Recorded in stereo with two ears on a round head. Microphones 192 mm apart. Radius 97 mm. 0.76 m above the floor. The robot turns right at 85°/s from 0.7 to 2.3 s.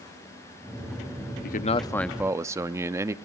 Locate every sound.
1.4 s a man speaking: 125° left, 0.8 m; by 3.1 s 165° right, 0.8 m